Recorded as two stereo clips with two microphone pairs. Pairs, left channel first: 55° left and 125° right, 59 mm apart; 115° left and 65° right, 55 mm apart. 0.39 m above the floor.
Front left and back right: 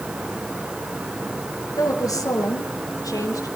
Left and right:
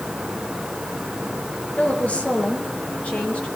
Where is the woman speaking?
50° left, 5.5 m.